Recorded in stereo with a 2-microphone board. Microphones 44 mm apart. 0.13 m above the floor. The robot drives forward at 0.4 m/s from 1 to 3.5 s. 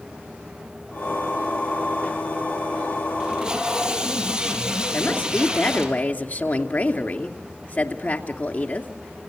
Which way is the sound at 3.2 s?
20° right (ahead or behind).